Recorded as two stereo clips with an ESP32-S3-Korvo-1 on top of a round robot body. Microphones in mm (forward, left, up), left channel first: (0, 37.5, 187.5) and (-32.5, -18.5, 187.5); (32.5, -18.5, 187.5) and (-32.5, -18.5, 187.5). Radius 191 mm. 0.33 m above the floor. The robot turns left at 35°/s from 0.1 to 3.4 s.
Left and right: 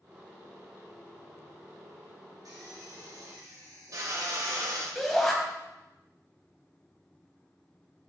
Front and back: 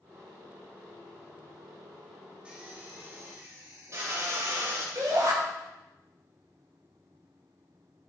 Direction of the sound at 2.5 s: 105° right.